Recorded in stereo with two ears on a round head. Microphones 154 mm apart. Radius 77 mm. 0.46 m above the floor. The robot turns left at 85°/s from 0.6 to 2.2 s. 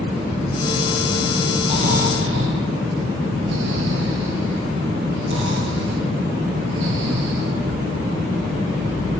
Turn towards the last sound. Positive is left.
turn(degrees=-80)